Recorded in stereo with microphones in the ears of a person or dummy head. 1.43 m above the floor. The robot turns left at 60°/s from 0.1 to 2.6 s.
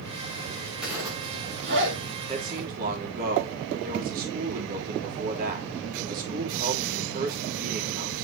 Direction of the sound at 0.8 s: Centre (ahead or behind).